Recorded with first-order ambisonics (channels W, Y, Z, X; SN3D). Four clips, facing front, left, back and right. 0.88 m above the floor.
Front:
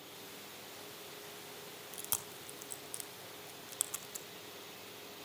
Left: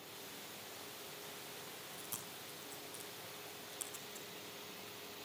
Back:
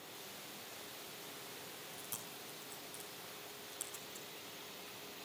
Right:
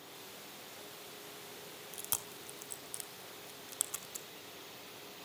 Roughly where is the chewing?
Ahead right.